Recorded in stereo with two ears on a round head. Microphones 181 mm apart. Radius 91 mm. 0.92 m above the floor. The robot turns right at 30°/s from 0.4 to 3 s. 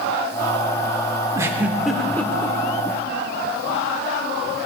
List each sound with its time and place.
1.4 s a giggle: 15° right (ahead or behind), 0.9 m; by 2.6 s 20° left (ahead or behind), 0.9 m